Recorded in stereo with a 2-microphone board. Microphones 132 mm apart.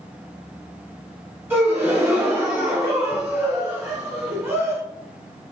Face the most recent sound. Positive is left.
turn(degrees=-20)  # may be behind; listen again after turning